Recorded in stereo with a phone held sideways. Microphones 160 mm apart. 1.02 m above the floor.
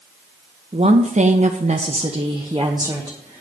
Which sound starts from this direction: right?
A woman speaking, at 0.7 s.